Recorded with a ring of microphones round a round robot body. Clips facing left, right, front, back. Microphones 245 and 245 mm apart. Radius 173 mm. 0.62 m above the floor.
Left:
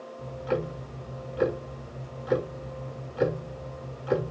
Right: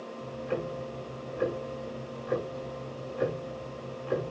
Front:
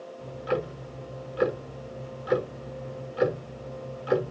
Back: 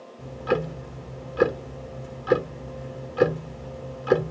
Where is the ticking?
150° left, 1.1 m.